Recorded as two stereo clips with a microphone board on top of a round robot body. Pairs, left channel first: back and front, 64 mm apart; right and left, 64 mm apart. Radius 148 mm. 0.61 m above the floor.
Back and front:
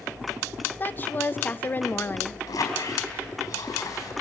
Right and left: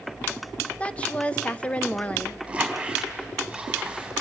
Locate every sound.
0.8 s a woman speaking: 145° right, 1.0 m
2.5 s a squeak: 165° left, 4.5 m